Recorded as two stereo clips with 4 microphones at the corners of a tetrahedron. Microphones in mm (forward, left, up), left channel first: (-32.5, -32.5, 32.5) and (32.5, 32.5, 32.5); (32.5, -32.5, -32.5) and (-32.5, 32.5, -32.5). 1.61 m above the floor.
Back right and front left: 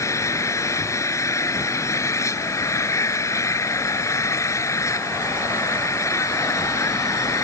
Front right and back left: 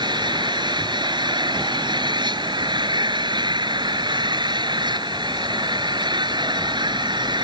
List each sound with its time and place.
0.0 s an engine running: 170° left